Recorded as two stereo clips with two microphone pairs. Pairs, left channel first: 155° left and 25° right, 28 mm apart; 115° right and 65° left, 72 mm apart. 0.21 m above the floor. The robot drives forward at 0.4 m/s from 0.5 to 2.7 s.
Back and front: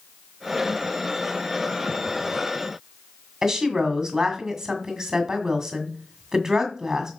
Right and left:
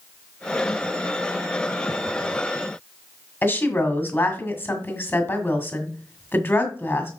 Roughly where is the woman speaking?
Right.